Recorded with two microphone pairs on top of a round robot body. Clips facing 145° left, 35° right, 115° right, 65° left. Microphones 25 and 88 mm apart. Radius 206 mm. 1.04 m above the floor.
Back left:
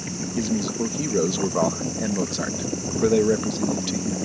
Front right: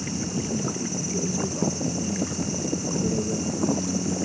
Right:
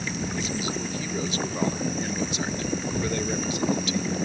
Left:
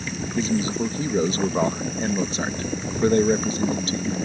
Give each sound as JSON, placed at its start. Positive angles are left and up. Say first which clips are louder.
{"t": 0.3, "sound": "a man speaking", "louder": "back left 6 dB, left 6 dB", "azimuth_deg": 120}